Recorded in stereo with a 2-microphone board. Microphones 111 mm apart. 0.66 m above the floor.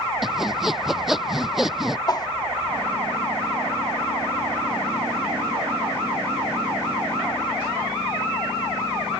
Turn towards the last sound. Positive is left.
turn(degrees=35)  # may be behind; listen again after turning